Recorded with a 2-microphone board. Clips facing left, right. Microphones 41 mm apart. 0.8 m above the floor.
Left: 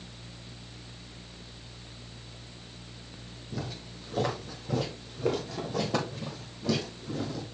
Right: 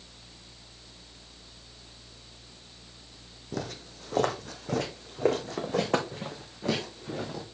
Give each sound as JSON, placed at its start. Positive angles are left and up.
{"t": 3.5, "sound": "footsteps", "side_deg": -60, "distance_m": 1.6}